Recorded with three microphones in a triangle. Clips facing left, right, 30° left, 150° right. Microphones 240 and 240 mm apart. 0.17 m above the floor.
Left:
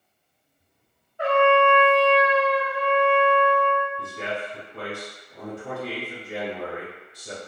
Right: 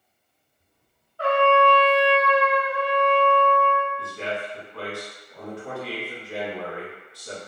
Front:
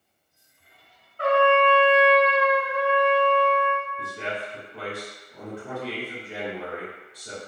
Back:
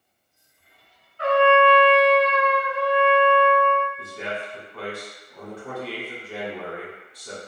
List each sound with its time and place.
1.2 s a trumpet: 25° left, 0.6 m
4.0 s a man speaking: 70° left, 1.0 m